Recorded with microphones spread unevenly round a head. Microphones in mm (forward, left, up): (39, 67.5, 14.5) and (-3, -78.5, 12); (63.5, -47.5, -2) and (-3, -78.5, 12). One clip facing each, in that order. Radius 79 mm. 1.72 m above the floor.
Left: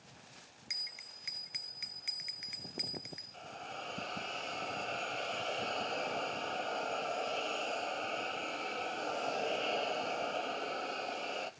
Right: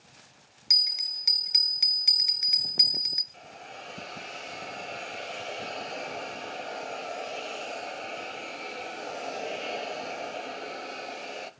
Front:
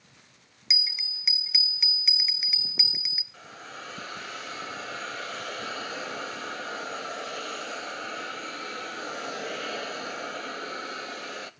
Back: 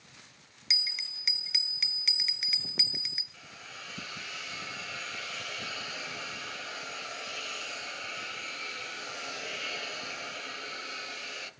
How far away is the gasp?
No gasp in this recording.